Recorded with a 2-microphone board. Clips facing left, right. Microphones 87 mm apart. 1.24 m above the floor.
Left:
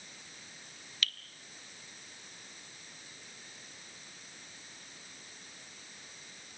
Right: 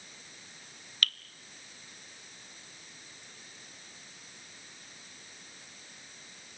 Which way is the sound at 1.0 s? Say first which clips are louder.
Right 4 dB; 55° right (ahead or behind).